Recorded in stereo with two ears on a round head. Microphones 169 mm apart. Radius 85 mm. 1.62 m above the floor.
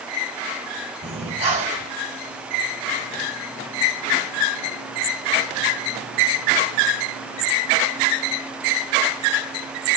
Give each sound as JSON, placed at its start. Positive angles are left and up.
{"t": 1.0, "sound": "breathing", "side_deg": -35, "distance_m": 1.6}